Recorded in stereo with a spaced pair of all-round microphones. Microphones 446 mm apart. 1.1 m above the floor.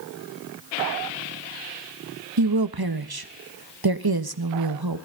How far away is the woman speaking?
About 1.4 m.